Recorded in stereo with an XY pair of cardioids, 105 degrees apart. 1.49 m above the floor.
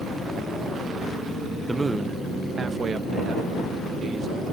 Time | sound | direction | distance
1.7 | a man speaking | 15° right | ?